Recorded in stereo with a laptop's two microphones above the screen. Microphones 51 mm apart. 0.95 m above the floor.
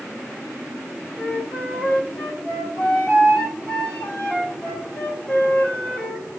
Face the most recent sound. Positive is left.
turn(degrees=20)  # may be behind; listen again after turning